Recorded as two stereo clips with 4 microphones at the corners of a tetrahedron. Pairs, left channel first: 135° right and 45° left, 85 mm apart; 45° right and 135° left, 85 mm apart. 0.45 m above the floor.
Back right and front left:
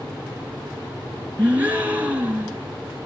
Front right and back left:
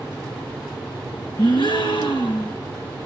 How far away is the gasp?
About 3 m.